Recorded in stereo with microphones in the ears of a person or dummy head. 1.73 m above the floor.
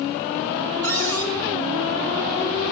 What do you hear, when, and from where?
0.8 s a cupboard door: 70° right (ahead or behind), 4.5 m